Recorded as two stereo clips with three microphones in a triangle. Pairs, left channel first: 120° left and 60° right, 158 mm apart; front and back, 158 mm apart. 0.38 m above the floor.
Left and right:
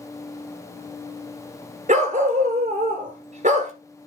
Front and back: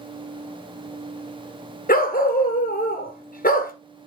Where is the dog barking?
25° right, 1.4 m.